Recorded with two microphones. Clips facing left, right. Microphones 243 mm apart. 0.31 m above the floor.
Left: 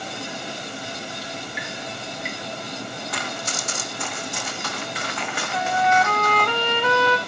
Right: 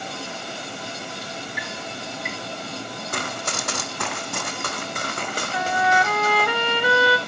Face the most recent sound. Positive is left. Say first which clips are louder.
# left 2 dB
turn(degrees=-10)  # may be behind; listen again after turning